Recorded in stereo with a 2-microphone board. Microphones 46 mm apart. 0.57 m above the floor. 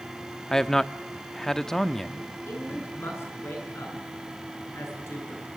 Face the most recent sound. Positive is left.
turn(degrees=70)  # may be behind; listen again after turning